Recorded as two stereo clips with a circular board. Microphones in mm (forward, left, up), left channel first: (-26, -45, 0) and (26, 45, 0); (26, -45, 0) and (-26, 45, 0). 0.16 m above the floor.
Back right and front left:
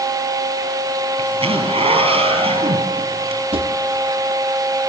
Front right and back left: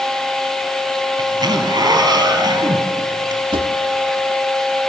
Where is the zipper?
70° left, 3 m.